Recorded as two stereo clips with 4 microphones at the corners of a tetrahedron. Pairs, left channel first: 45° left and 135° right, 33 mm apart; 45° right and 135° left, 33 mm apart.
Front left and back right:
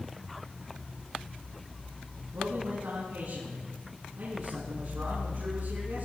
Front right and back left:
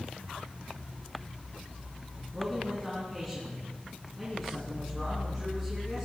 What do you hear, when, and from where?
2.3 s a man speaking: 130° right, 6 m